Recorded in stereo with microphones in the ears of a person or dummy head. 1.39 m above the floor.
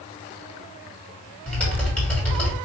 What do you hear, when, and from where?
1.5 s typing on a keyboard: 10° left (ahead or behind), 1.8 m